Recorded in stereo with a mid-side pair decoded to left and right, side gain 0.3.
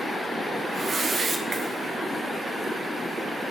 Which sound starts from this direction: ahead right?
A whoosh, at 0.7 s.